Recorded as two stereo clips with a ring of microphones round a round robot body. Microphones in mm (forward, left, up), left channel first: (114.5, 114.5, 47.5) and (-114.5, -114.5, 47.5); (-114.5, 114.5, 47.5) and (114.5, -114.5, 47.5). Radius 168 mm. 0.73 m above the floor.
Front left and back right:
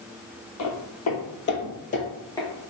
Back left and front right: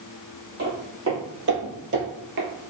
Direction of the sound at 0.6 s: 10° left.